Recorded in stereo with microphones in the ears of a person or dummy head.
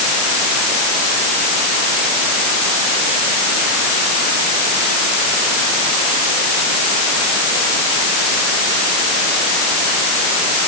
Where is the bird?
I don't hear a bird.